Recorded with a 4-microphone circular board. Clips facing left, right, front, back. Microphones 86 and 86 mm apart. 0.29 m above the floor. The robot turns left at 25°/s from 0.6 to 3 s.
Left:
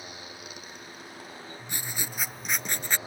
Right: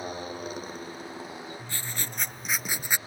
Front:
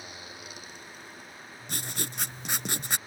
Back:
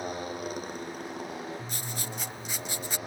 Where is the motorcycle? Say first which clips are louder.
Right 9 dB, back 11 dB; 140° right; by 3.1 s 160° left.